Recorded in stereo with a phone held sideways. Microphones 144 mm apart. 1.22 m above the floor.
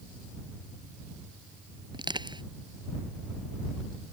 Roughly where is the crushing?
Right.